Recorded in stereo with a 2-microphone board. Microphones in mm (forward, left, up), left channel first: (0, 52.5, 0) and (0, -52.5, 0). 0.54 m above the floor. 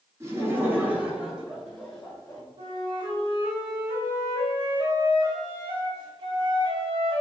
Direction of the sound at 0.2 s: 25° right (ahead or behind).